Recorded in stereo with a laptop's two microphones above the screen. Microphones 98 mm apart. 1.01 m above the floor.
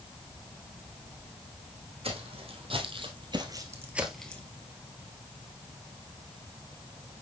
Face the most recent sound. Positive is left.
turn(degrees=20)  # may be behind; listen again after turning